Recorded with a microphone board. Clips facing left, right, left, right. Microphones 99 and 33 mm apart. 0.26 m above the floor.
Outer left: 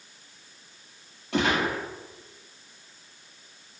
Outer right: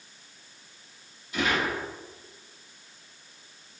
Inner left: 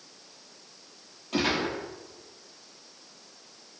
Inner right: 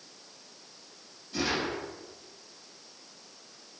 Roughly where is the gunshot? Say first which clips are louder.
Outer left 3 dB, inner left 3 dB; left.